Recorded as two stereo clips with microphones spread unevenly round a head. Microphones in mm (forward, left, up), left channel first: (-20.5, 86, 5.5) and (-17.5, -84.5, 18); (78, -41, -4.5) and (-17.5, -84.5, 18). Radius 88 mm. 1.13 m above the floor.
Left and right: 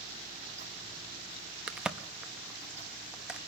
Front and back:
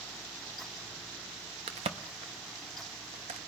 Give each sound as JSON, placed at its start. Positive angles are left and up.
{"t": 1.7, "sound": "a crack", "azimuth_deg": -170, "distance_m": 0.6}